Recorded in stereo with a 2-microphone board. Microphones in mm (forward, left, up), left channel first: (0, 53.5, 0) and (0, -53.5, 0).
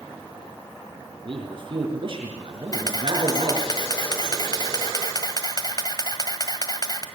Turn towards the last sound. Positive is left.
turn(degrees=40)  # may be behind; listen again after turning